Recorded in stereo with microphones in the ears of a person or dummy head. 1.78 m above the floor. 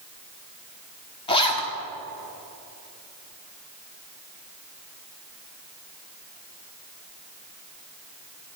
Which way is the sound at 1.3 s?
25° left (ahead or behind).